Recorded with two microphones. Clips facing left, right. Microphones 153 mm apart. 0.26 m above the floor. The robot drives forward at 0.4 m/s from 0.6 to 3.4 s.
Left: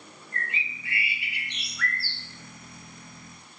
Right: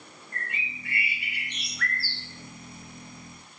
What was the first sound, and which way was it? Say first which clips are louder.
A bird: left 2 dB; 55° right (ahead or behind).